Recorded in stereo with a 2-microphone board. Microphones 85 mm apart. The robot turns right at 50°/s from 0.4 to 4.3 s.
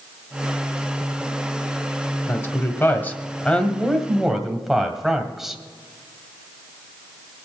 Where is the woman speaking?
30° left (ahead or behind), 1.4 m; by 5.6 s 5° right (ahead or behind), 1.4 m.